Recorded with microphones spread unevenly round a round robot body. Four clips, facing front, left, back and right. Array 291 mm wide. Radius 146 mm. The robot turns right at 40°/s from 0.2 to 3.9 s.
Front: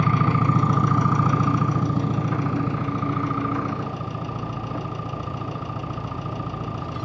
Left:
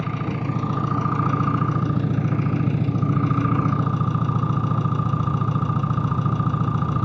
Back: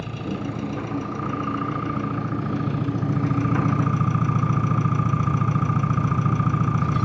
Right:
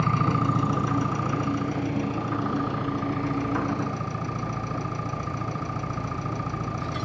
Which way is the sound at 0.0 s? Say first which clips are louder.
Right 3 dB, front 8 dB; 15° right.